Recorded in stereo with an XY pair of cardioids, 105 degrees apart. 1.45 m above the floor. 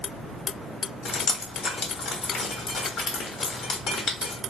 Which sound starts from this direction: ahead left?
Dripping, at 1.1 s.